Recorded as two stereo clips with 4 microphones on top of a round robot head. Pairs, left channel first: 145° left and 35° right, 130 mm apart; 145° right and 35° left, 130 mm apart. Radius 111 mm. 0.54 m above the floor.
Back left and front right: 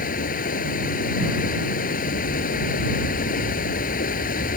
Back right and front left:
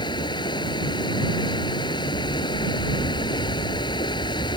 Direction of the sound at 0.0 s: 155° left.